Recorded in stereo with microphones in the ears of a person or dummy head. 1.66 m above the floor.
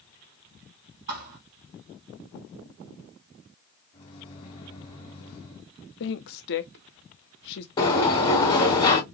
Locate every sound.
1.1 s a thud: 45° right (ahead or behind), 2.5 m
3.9 s a microwave: 20° left (ahead or behind), 2.5 m
6.0 s a woman speaking: 55° left (ahead or behind), 0.9 m
7.8 s a sliding door: 10° left (ahead or behind), 2.5 m